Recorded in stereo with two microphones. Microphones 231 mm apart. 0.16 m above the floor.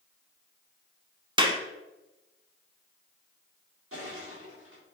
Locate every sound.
1.4 s a clap: 20° right (ahead or behind), 0.9 m
3.9 s crushing: 70° right (ahead or behind), 4.5 m